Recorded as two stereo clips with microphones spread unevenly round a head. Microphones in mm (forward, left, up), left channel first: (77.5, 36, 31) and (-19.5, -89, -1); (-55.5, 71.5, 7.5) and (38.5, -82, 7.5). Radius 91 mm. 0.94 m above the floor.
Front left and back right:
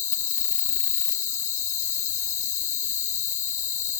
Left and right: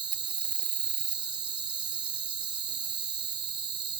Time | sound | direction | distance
0.0 | an insect | 5° left | 1.6 m